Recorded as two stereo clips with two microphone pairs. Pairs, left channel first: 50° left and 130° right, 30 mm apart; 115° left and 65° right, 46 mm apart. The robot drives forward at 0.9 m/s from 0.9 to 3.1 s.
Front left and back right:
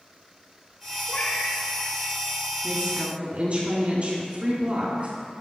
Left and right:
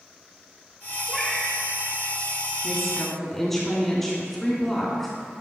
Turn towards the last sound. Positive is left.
turn(degrees=-165)